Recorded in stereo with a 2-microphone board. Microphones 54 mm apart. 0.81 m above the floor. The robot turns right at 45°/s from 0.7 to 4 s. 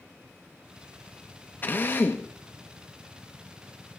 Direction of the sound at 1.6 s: 35° left (ahead or behind).